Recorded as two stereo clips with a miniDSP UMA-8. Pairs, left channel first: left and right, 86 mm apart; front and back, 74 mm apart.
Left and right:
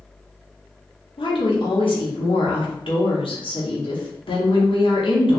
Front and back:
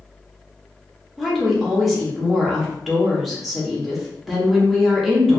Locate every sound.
1.2 s a woman speaking: 90° left, 1.1 m